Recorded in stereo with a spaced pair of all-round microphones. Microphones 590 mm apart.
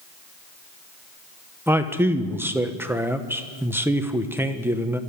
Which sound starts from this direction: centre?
A man speaking, at 1.7 s.